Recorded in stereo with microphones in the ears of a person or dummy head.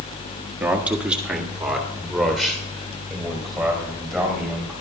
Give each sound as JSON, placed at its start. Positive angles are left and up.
{"t": 0.6, "sound": "a man speaking", "side_deg": -5, "distance_m": 1.2}